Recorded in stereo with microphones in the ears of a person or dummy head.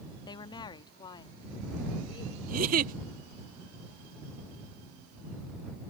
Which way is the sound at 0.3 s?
20° left (ahead or behind).